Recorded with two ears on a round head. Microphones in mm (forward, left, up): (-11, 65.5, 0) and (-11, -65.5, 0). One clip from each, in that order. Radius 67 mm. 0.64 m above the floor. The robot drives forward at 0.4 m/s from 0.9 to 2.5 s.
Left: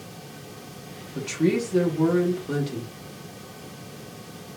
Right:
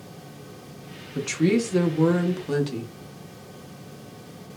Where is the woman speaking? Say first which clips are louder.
Right 1 dB; 25° right (ahead or behind), 0.6 m.